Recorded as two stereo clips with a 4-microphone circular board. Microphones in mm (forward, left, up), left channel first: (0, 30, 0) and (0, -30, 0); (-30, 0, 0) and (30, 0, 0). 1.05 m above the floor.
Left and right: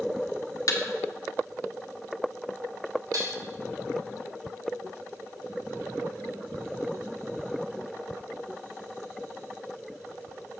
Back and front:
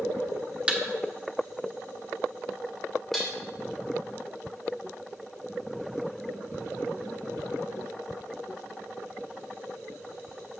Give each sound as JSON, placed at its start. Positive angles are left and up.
{"t": 0.7, "sound": "a thud", "azimuth_deg": 70, "distance_m": 1.2}
{"t": 3.1, "sound": "dishes clattering", "azimuth_deg": -90, "distance_m": 2.5}